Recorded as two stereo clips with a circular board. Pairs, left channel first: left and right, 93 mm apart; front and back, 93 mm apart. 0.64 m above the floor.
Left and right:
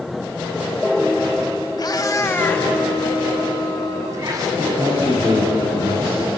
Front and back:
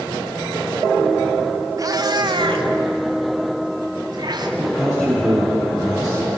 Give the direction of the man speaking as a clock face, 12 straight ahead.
3 o'clock.